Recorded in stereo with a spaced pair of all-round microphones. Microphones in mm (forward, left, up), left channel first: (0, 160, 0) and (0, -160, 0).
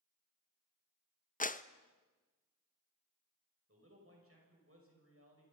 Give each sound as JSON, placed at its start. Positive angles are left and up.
{"t": 1.4, "sound": "a clap", "side_deg": 25, "distance_m": 0.6}
{"t": 3.7, "sound": "a man speaking", "side_deg": -45, "distance_m": 7.0}